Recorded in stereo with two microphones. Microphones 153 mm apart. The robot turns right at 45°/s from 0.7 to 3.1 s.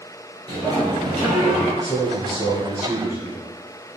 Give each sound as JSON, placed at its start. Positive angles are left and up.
{"t": 0.5, "sound": "a sliding door", "azimuth_deg": -75, "distance_m": 1.8}
{"t": 1.8, "sound": "a man speaking", "side_deg": 5, "distance_m": 1.6}